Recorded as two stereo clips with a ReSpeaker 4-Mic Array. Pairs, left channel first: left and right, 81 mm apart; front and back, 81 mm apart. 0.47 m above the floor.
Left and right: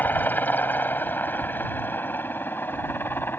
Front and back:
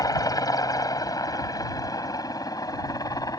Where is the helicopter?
30° left.